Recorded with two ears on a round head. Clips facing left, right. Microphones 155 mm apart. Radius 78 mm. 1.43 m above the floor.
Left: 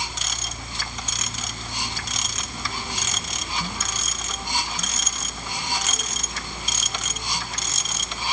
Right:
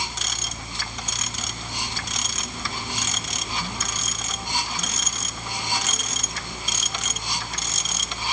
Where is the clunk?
I don't hear a clunk.